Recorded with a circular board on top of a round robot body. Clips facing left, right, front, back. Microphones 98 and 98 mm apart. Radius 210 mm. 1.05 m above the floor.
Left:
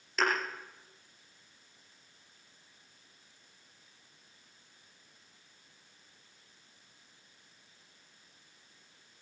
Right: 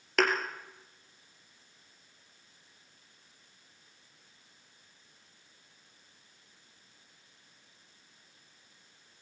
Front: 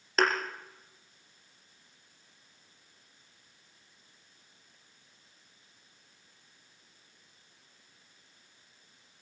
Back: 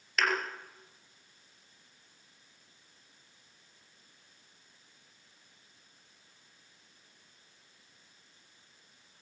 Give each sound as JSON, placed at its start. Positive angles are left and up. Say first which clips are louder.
{"t": 0.2, "sound": "a thud", "louder": "right 3 dB, front 4 dB", "azimuth_deg": -60, "distance_m": 3.5}